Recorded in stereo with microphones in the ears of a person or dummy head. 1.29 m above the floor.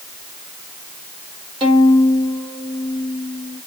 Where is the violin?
35° right (ahead or behind), 1.4 m.